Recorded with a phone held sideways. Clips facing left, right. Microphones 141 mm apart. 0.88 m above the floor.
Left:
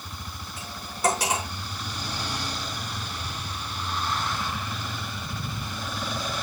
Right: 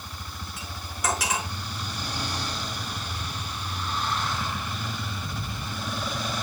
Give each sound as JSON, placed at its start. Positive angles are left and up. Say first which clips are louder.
{"t": 0.6, "sound": "cutlery clinking", "louder": "left 5 dB", "side_deg": 30, "distance_m": 6.0}